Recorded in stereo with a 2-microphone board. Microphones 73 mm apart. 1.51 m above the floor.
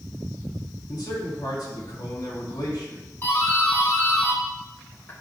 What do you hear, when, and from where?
0.9 s a man speaking: 75° left (ahead or behind), 3.5 m
3.2 s a doorbell: 30° left (ahead or behind), 3.5 m